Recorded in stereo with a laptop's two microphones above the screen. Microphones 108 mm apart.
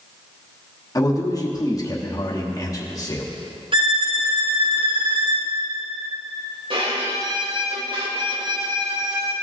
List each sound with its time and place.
0.9 s a man speaking: 35° left (ahead or behind), 1.1 m
3.7 s a violin: 50° right (ahead or behind), 0.9 m
6.7 s a violin: 55° right (ahead or behind), 1.2 m